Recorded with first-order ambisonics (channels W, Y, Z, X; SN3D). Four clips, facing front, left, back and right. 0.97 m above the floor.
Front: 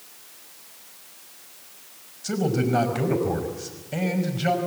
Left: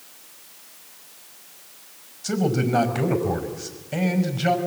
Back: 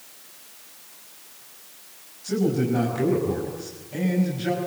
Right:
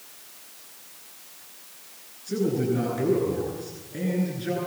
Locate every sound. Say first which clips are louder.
2.2 s a man speaking: left 2 dB, back 1 dB; 55° left, 5 m